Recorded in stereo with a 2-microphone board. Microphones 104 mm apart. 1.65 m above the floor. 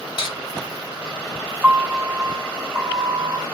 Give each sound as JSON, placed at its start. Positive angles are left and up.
{"t": 0.2, "sound": "cutlery clinking", "side_deg": 55, "distance_m": 1.4}
{"t": 1.6, "sound": "a piano", "side_deg": -10, "distance_m": 1.4}